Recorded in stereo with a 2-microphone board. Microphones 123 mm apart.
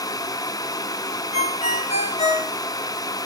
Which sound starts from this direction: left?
A ringtone, at 1.3 s.